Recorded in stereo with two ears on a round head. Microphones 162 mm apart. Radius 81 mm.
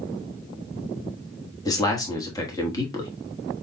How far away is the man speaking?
About 1.1 m.